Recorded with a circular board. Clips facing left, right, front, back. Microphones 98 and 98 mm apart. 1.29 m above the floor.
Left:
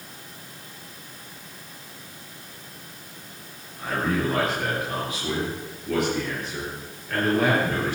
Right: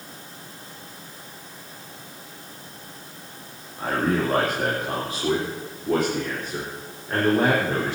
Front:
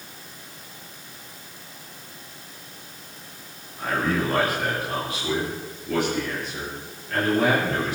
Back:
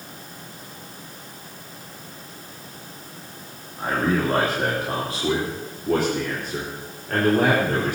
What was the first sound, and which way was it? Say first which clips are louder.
A man speaking: right 2 dB, back 2 dB; 115° right.